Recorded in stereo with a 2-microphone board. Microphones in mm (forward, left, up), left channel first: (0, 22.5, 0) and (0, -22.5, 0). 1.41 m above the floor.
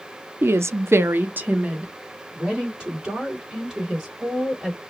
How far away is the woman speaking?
About 0.5 m.